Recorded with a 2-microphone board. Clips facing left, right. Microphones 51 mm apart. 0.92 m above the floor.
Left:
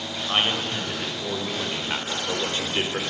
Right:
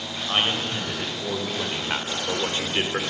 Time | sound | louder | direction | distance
0.3 | a man speaking | even | 5° left (ahead or behind) | 5 m